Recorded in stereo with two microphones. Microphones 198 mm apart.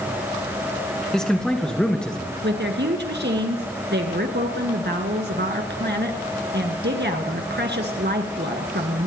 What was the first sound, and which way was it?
A man speaking, 5° left (ahead or behind).